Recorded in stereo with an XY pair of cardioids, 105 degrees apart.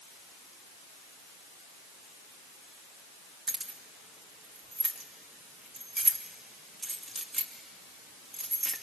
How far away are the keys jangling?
About 2 m.